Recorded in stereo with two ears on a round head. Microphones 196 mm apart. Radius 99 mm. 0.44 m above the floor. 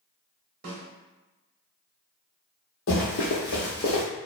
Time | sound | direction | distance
0.6 | a snare drum | 45° right (ahead or behind) | 0.8 m
2.9 | running footsteps | 65° left (ahead or behind) | 1.0 m